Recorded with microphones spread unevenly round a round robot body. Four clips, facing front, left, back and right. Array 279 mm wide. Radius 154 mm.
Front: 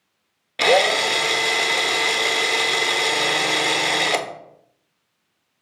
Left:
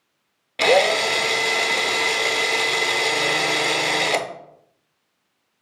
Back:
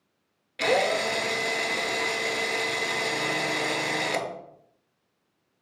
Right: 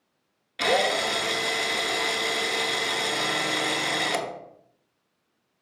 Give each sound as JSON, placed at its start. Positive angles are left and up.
{"t": 0.6, "sound": "a drill", "azimuth_deg": 40, "distance_m": 1.0}